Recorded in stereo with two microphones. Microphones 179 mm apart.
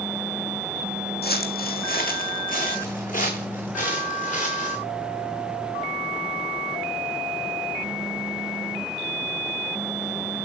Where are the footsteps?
60° left (ahead or behind), 1.4 m; by 4.8 s 45° left (ahead or behind), 3 m.